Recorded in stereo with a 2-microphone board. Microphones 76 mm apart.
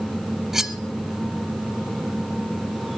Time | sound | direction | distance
0.5 | cutlery clinking | 5° right (ahead or behind) | 0.7 m